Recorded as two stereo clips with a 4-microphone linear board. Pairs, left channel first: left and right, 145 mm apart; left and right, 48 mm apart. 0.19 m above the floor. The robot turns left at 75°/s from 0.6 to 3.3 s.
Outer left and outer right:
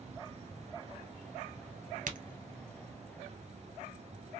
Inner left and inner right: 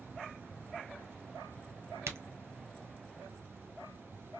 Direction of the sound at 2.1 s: 70° right (ahead or behind).